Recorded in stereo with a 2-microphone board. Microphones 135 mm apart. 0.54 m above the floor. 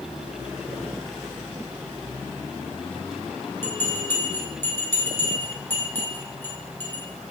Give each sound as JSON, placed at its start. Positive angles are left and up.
{"t": 3.6, "sound": "a bell", "side_deg": 20, "distance_m": 2.0}